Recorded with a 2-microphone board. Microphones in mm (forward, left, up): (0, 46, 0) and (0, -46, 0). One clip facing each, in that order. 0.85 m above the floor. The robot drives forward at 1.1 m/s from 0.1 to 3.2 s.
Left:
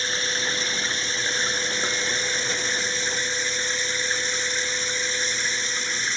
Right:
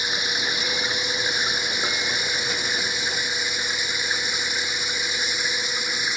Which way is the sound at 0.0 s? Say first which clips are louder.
Even; 15° right (ahead or behind).